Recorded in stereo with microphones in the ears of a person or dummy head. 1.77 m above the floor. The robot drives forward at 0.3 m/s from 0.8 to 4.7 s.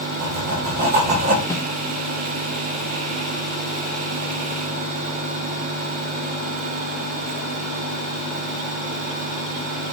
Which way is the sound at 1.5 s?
15° left (ahead or behind).